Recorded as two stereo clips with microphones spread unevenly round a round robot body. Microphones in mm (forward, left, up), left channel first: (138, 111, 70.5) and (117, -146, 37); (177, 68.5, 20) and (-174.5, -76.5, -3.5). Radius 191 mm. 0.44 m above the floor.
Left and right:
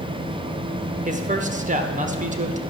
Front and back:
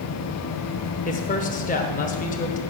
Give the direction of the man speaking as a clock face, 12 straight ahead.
2 o'clock.